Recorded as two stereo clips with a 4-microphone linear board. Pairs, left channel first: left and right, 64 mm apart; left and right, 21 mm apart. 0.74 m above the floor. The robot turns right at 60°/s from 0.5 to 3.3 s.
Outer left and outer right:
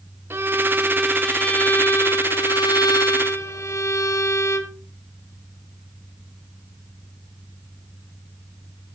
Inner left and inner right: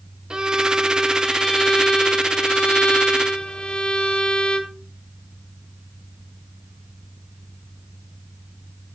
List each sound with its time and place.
0.3 s a violin: 40° right, 1.7 m; by 4.8 s 130° left, 1.7 m